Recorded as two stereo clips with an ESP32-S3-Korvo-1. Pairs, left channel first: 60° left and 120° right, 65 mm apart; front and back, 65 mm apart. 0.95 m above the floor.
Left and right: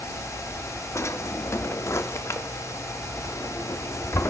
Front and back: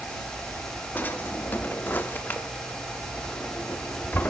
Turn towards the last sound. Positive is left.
turn(degrees=50)